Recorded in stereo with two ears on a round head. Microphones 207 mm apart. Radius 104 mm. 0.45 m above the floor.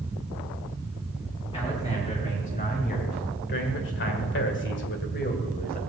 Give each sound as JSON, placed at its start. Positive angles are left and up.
{"t": 1.5, "sound": "a man speaking", "side_deg": 25, "distance_m": 3.5}